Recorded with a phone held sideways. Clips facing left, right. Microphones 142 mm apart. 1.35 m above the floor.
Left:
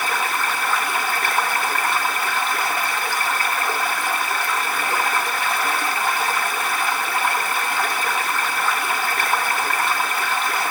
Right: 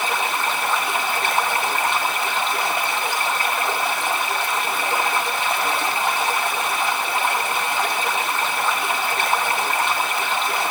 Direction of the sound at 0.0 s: 20° right (ahead or behind).